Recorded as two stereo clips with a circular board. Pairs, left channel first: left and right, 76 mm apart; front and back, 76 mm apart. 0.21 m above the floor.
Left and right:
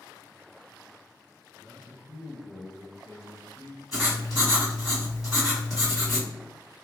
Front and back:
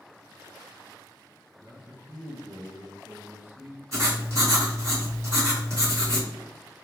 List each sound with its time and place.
1.6 s a man speaking: 145° left, 1.8 m
3.9 s writing: 170° right, 1.9 m